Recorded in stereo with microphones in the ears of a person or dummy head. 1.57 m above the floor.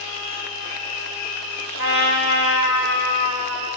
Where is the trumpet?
70° right (ahead or behind), 3.5 m.